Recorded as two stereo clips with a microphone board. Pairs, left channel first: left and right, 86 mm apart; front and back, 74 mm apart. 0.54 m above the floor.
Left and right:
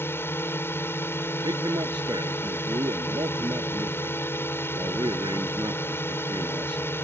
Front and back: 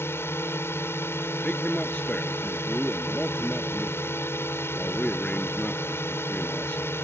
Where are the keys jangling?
I don't hear keys jangling.